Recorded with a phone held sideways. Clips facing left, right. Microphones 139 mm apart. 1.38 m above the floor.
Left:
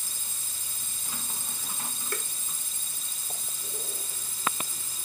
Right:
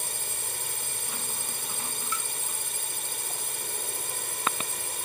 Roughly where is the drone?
Right.